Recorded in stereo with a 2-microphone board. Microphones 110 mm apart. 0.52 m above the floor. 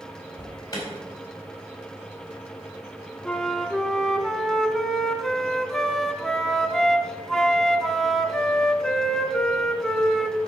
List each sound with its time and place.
0.4 s an alarm: 35° left (ahead or behind), 4 m
3.2 s a flute: 5° left (ahead or behind), 0.9 m